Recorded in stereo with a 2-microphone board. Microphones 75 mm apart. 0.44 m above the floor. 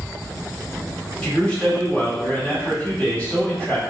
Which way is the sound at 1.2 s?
20° left (ahead or behind).